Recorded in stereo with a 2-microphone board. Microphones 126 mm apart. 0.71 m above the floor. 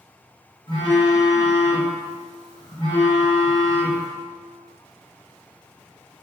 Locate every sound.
0.7 s a phone buzzing: 40° left (ahead or behind), 0.9 m